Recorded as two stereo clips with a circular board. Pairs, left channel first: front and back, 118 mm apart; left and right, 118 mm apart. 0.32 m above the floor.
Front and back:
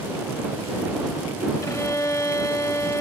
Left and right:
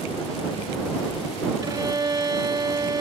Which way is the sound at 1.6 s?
50° right.